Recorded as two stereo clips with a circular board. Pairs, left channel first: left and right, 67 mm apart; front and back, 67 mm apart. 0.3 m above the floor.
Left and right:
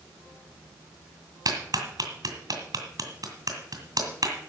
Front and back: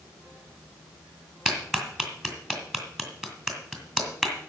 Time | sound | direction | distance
1.4 | a clap | 100° right | 2.5 m